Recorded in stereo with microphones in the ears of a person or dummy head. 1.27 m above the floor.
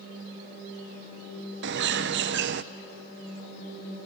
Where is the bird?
50° right (ahead or behind), 0.6 m.